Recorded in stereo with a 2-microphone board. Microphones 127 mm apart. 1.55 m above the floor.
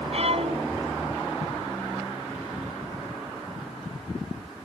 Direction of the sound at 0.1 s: 55° right (ahead or behind).